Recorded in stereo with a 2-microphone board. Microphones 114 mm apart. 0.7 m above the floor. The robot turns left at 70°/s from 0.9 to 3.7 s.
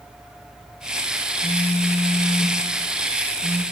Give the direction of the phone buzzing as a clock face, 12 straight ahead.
8 o'clock.